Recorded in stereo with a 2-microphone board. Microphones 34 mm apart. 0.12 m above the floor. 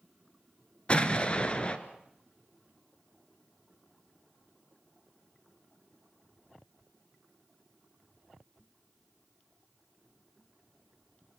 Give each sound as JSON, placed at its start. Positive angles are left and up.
{"t": 0.9, "sound": "an explosion", "side_deg": 30, "distance_m": 1.7}